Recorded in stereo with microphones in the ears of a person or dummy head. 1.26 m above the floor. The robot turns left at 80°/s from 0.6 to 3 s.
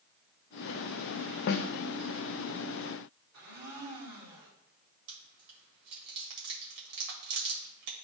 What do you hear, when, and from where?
1.5 s a snare drum: 55° left (ahead or behind), 0.6 m; by 1.7 s 70° left (ahead or behind), 0.6 m
3.3 s a blender: 85° right, 2.5 m
5.1 s chewing: 60° right (ahead or behind), 1.7 m